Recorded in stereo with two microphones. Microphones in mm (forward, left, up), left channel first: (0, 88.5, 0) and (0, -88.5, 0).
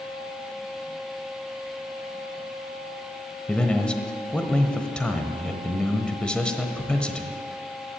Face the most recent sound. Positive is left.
turn(degrees=5)  # may be behind; listen again after turning